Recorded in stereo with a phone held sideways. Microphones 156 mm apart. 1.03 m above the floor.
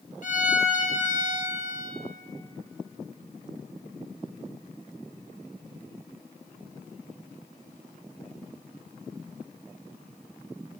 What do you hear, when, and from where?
0.2 s a violin: 55° left (ahead or behind), 1.0 m